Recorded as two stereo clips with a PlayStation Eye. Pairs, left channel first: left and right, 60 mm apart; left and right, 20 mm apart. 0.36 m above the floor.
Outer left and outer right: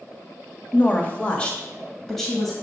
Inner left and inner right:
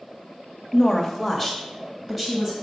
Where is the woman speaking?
35° left (ahead or behind), 1.0 m; by 2.5 s centre (ahead or behind), 1.8 m.